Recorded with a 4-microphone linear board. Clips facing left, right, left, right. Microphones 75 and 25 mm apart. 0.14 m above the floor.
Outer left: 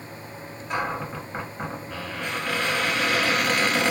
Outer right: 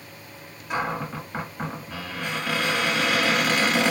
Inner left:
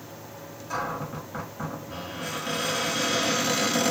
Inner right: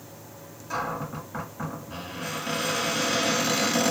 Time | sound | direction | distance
0.7 | a cupboard door | 5° right (ahead or behind) | 1.4 m